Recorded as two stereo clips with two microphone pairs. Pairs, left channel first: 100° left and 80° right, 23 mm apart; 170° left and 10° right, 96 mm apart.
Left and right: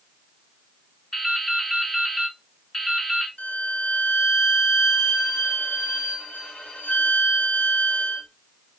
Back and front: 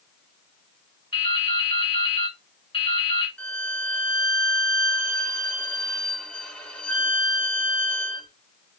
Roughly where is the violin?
Left.